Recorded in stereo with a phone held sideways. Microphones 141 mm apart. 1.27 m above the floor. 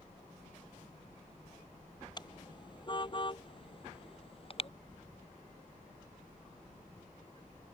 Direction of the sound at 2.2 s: 30° left (ahead or behind).